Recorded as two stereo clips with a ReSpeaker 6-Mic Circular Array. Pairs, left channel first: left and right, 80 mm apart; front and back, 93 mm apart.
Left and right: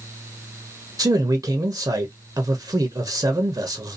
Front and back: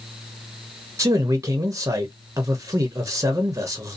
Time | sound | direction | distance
1.0 | a man speaking | 125° right | 0.6 m